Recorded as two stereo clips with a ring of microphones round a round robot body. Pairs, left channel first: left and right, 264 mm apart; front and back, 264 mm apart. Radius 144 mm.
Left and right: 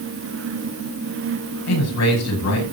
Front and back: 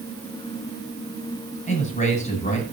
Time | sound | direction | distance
1.7 | a man speaking | 65° left | 7.5 m